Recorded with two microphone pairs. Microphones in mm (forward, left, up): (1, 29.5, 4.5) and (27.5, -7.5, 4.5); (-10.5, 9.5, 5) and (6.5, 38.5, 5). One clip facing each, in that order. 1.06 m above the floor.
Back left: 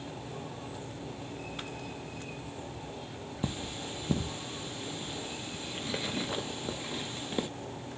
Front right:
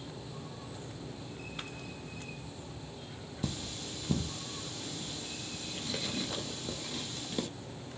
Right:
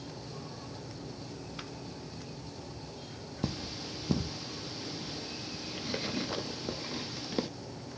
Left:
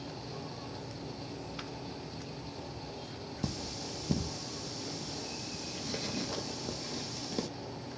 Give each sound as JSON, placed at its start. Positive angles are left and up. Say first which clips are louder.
{"t": 3.4, "sound": "cutlery clinking", "louder": "back left 2 dB, right 2 dB", "azimuth_deg": 180, "distance_m": 0.5}